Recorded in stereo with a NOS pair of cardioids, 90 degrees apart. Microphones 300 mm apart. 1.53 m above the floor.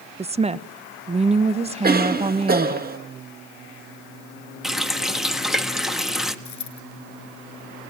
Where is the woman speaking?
20° right, 1.0 m.